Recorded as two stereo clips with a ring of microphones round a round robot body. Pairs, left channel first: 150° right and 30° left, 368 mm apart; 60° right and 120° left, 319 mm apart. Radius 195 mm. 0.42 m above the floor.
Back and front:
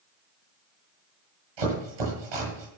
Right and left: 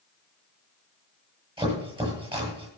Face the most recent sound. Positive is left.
turn(degrees=45)